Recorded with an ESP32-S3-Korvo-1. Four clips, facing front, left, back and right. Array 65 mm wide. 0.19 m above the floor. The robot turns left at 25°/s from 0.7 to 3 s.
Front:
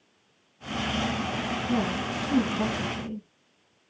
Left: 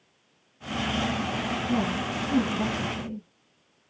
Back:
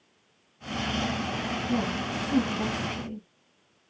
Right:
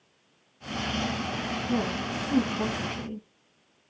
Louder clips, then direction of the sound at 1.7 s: Left 1 dB, front 1 dB; 5° right.